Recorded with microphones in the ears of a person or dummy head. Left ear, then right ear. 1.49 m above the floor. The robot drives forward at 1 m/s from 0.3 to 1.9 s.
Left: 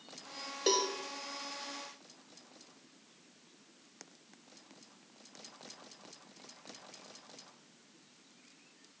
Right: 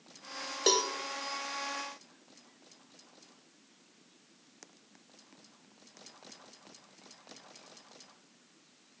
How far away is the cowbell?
About 1.2 m.